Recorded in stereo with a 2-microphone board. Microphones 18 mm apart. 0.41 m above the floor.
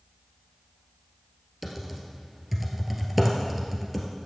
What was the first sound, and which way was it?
Typing on a keyboard, 10° right (ahead or behind).